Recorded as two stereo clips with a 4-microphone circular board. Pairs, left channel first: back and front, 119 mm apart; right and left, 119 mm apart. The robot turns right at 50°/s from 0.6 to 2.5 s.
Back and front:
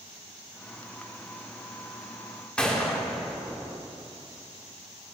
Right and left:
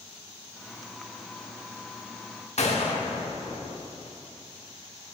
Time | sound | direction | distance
2.6 | a gunshot | 100° right | 1.1 m